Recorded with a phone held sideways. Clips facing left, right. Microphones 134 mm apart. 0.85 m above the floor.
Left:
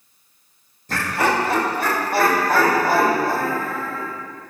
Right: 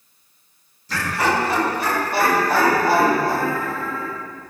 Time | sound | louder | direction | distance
0.9 | laughter | left 1 dB | 55° left (ahead or behind) | 1.3 m